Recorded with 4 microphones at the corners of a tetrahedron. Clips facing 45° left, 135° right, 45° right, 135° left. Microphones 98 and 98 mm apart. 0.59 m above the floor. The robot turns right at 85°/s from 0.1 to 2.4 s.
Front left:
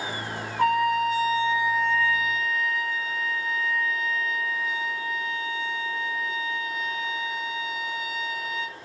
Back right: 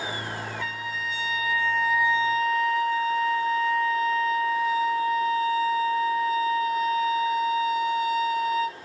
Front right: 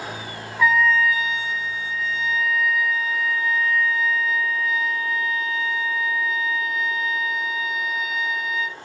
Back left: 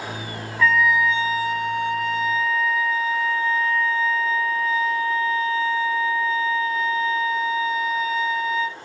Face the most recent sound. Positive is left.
turn(degrees=-175)